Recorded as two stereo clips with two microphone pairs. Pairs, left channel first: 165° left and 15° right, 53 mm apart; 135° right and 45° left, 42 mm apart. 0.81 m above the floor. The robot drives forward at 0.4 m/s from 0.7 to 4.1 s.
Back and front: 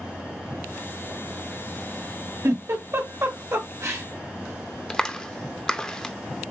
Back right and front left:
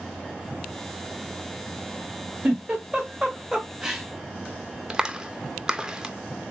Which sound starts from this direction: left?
A clap, at 4.9 s.